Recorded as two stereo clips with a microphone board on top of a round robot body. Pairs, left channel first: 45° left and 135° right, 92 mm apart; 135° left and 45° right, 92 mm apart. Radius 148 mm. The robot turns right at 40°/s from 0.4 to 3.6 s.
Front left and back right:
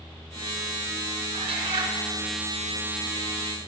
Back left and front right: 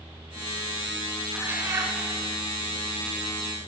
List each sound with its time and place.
1.3 s a cat meowing: 120° right, 3.5 m; by 1.9 s 95° right, 3.5 m